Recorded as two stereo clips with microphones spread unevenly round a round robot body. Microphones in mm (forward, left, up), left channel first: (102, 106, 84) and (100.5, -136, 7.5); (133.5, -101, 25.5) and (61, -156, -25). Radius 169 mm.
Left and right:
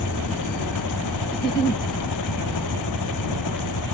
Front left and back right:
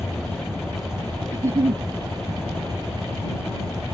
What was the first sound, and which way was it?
An engine running, 125° left.